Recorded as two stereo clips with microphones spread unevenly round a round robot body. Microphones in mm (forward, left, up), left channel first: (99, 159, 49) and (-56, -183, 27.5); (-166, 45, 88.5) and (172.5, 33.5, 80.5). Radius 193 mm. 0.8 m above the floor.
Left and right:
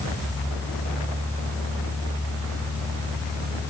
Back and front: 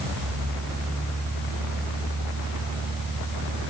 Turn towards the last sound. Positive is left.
No sound to turn to.